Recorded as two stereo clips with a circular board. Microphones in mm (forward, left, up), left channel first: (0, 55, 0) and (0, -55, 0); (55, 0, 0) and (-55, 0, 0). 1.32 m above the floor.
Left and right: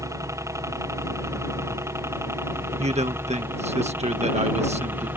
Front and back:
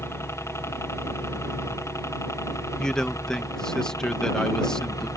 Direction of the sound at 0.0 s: 50° right.